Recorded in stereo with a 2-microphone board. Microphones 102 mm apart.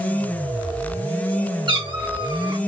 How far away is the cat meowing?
About 1.6 m.